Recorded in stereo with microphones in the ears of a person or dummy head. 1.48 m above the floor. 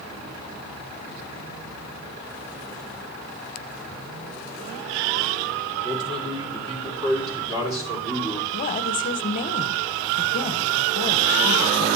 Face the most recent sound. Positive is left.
turn(degrees=40)  # may be behind; listen again after turning